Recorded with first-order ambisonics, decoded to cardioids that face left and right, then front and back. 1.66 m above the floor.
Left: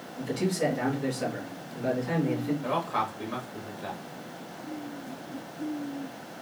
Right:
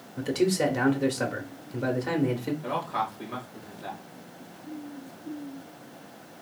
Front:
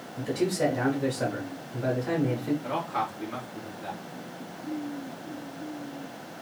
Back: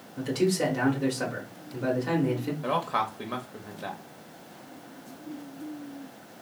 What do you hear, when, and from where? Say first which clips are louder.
0.2 s a man speaking: right 4 dB, back 1 dB; 110° right, 0.8 m
2.6 s a man speaking: even, back 7 dB; 175° left, 0.7 m